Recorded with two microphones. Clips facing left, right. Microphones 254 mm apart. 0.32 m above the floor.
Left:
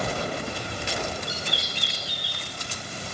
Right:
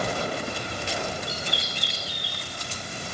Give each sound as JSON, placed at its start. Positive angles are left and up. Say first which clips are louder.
{"t": 1.3, "sound": "a bird", "louder": "even", "side_deg": -60, "distance_m": 4.0}